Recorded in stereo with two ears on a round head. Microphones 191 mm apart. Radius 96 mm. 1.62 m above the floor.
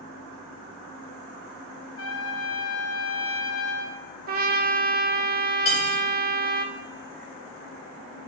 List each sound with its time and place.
2.0 s a trumpet: 70° left (ahead or behind), 1.1 m
4.3 s a trumpet: 45° right (ahead or behind), 1.0 m
5.7 s cutlery clinking: 30° left (ahead or behind), 4.5 m